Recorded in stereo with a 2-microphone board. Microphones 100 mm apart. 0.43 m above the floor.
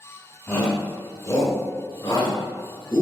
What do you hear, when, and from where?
0.5 s a shout: 15° left (ahead or behind), 0.9 m; by 3.0 s 35° left (ahead or behind), 1.6 m